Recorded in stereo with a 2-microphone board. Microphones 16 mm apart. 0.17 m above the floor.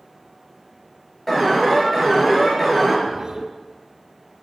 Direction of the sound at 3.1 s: 35° right (ahead or behind).